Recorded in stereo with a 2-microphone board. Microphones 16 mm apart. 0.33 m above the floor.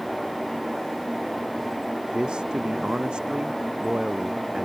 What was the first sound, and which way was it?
A man speaking, 80° right.